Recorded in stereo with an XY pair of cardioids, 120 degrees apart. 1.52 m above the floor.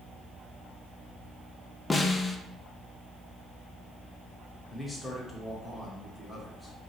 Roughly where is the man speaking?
Ahead.